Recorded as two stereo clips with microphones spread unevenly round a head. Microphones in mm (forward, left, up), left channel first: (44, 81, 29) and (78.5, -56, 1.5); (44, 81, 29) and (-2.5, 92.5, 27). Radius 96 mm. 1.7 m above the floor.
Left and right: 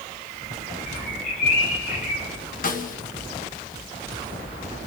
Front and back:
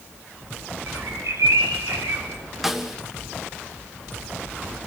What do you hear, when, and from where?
0.9 s a bird: 155° left, 4.5 m
2.6 s a snare drum: 80° left, 2.5 m